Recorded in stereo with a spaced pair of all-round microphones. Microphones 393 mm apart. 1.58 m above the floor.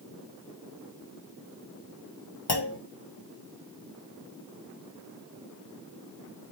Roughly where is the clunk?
Left.